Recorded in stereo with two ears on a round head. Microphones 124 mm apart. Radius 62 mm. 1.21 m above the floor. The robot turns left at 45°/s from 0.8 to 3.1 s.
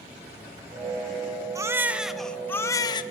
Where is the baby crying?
155° right, 1.3 m; by 3.0 s 140° left, 1.3 m.